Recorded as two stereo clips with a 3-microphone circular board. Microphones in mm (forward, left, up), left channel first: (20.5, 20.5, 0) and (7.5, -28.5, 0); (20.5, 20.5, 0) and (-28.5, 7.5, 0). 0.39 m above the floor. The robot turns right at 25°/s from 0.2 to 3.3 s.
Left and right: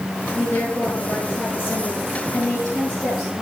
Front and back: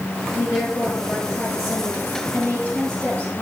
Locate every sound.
0.3 s a woman speaking: 5° left, 6 m; by 3.4 s 80° left, 6 m